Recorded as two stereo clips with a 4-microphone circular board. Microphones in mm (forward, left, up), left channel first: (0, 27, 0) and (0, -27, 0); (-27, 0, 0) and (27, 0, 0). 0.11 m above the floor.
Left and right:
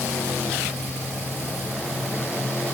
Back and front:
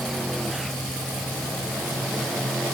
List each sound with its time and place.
Only background noise.